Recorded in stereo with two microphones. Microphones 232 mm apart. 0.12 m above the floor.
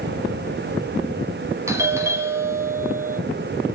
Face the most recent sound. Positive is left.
turn(degrees=-10)  # may be behind; listen again after turning